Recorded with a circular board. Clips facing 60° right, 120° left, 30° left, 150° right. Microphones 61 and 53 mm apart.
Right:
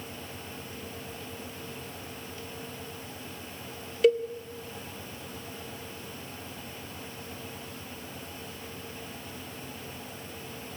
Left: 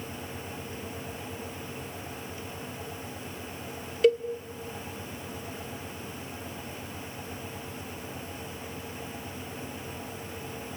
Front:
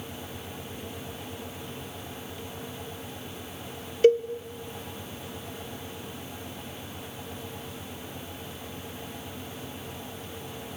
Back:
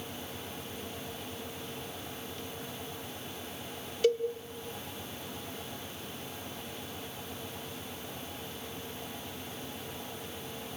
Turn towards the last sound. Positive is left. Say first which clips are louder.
# even, front 8 dB
turn(degrees=30)